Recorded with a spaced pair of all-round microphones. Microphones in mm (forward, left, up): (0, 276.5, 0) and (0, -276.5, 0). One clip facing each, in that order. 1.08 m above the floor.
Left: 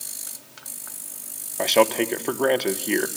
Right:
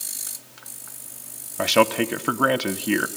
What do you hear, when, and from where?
1.6 s a man speaking: 35° right (ahead or behind), 0.9 m